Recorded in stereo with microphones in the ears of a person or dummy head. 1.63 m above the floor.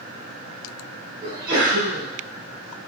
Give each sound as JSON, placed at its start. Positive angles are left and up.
{"t": 1.2, "sound": "a sneeze", "side_deg": -60, "distance_m": 1.7}